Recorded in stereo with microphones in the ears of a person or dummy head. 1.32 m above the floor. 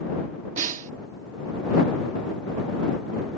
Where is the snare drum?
40° right (ahead or behind).